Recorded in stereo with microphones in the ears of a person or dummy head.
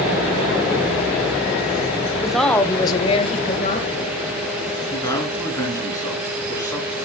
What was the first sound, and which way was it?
A woman speaking, 10° right (ahead or behind).